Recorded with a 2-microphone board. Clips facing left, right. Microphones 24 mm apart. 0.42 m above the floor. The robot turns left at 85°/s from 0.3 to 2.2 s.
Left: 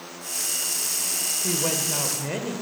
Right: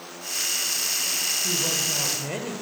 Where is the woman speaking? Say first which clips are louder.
Right 1 dB; 70° left, 1.4 m; by 2.5 s 5° left, 1.4 m.